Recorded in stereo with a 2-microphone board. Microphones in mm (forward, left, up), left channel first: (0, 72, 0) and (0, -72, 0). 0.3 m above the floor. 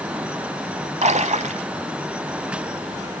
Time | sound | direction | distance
1.0 | a splash | 55° right (ahead or behind) | 0.7 m